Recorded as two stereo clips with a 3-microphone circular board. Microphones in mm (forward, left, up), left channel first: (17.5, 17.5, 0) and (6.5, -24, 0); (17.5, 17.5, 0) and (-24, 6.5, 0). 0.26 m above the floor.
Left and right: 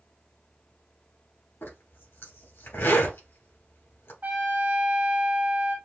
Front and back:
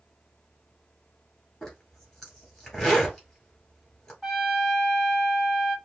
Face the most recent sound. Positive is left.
turn(degrees=-70)